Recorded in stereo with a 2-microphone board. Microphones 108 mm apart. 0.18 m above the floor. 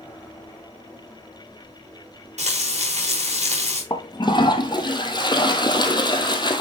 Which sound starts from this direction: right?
Frying, at 2.4 s.